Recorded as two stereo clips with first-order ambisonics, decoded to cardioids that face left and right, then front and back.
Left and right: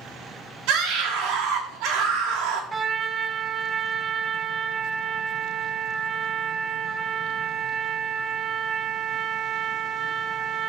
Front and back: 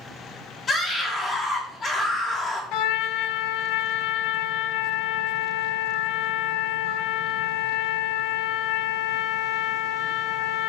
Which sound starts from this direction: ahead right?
A scream, at 0.7 s.